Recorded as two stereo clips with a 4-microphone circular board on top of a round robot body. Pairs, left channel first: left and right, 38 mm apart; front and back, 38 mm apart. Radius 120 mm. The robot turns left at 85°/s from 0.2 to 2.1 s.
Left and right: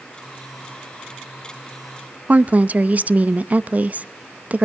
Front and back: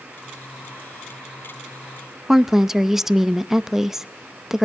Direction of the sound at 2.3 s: 105° right.